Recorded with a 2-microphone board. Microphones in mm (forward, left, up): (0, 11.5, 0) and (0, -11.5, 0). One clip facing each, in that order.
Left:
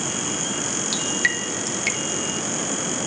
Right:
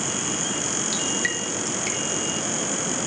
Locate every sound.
0.9 s dripping: 25° left (ahead or behind), 1.0 m